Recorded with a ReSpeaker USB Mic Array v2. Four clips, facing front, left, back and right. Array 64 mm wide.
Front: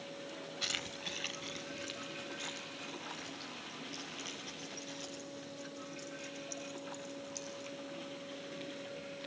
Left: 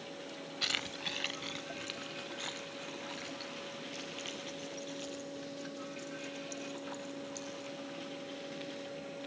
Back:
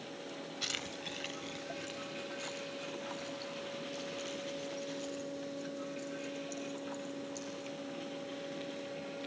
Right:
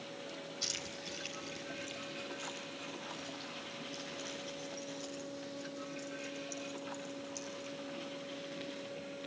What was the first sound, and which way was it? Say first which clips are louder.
Keys jangling: left 5 dB, front 1 dB; 85° left.